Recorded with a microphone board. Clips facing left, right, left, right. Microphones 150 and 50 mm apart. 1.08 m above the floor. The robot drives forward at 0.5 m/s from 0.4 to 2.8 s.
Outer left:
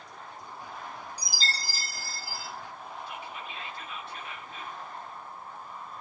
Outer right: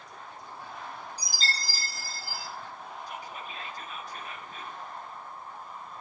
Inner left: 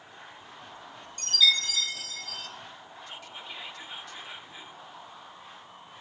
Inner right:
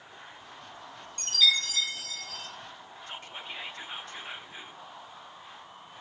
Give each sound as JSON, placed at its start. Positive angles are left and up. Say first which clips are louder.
{"t": 1.2, "sound": "a chime", "louder": "outer right 1 dB, inner left 1 dB", "side_deg": -50, "distance_m": 3.0}
{"t": 3.1, "sound": "whispering", "louder": "even, inner right 2 dB", "side_deg": -40, "distance_m": 0.8}